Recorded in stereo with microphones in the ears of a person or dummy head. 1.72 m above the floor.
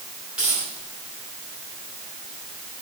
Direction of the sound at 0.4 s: 5° right (ahead or behind).